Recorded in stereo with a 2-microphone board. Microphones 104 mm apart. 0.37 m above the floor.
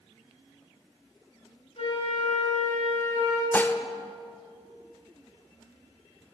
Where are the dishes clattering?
20° left (ahead or behind), 0.5 m.